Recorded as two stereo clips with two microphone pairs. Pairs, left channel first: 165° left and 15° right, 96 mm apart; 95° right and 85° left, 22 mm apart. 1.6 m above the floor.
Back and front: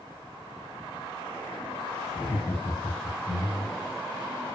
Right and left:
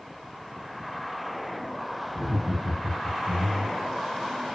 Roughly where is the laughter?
Behind left.